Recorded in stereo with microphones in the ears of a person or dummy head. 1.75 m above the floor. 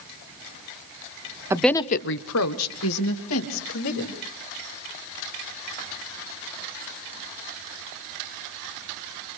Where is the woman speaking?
15° right (ahead or behind), 0.7 m; by 4.1 s 70° left (ahead or behind), 3.5 m.